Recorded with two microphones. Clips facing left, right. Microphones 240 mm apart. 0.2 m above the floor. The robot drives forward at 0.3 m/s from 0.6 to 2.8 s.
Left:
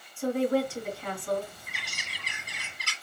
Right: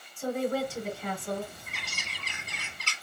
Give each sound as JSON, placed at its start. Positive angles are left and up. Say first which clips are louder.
{"t": 0.2, "sound": "a woman speaking", "louder": "left 4 dB", "side_deg": 0, "distance_m": 1.7}
{"t": 1.7, "sound": "a bird", "louder": "right 2 dB", "side_deg": 15, "distance_m": 1.2}